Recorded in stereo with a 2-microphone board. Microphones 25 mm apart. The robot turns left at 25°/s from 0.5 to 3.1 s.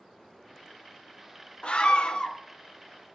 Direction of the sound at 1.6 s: 45° left (ahead or behind).